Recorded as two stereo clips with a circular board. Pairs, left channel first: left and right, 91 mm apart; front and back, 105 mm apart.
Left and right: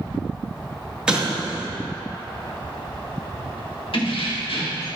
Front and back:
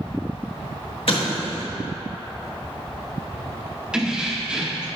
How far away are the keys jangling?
About 1.1 m.